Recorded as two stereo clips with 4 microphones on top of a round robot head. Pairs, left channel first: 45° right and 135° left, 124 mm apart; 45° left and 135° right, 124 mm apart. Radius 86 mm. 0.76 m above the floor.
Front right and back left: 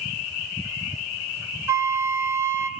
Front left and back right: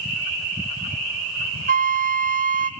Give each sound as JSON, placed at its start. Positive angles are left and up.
{"t": 1.7, "sound": "a flute", "azimuth_deg": -155, "distance_m": 1.6}